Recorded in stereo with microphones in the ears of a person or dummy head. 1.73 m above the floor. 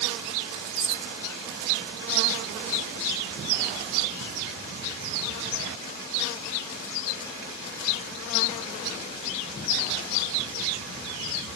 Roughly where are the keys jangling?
Left.